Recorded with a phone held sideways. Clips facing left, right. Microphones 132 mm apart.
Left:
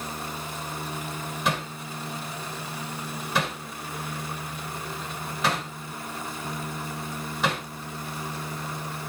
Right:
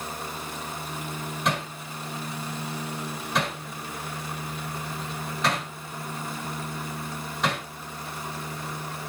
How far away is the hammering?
About 7 m.